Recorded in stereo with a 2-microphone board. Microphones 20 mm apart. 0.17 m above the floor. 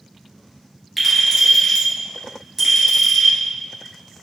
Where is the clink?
Centre (ahead or behind), 1.8 m.